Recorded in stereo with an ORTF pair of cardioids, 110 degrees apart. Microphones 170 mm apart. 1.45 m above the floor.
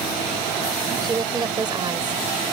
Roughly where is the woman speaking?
Ahead right.